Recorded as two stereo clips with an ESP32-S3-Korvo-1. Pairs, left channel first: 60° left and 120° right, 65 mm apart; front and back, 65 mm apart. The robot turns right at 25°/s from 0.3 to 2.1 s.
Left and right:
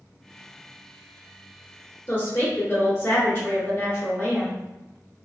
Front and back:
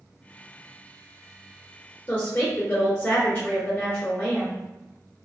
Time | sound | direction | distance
2.1 | a woman speaking | 30° left | 1.9 m